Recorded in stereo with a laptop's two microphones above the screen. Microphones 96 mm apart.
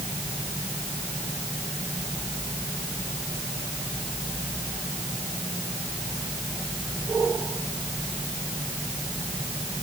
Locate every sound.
Only background noise.